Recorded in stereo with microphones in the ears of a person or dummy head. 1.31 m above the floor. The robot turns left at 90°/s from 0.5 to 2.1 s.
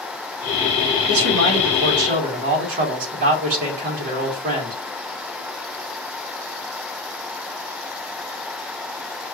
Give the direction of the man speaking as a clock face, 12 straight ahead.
2 o'clock.